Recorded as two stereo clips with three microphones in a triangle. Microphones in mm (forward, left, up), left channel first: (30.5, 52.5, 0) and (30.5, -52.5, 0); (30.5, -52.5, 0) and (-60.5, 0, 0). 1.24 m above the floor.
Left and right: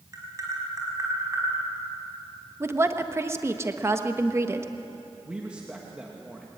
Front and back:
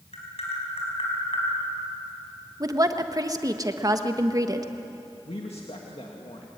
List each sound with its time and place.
0.1 s tapping: 30° right, 5 m
2.6 s a woman speaking: 155° right, 1.2 m
5.2 s a man speaking: 10° right, 1.9 m